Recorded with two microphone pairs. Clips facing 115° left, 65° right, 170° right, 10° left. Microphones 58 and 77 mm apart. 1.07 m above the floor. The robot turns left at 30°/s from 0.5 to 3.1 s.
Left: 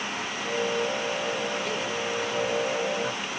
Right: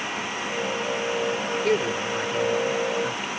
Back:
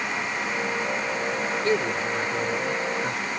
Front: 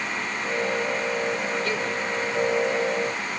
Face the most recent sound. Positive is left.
turn(degrees=-150)